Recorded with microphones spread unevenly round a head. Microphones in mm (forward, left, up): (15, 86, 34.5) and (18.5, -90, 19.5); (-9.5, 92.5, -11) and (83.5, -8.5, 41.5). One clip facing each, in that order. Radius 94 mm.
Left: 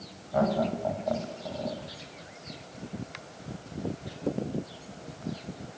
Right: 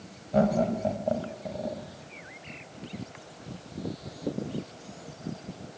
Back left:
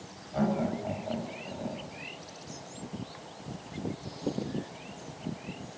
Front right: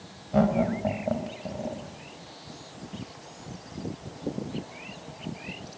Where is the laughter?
30° right, 5.5 m; by 1.8 s 15° right, 5.5 m.